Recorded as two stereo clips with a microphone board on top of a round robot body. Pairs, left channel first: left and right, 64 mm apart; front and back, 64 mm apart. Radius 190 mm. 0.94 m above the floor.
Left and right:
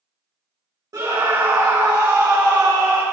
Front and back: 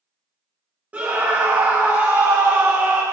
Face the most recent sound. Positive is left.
turn(degrees=-115)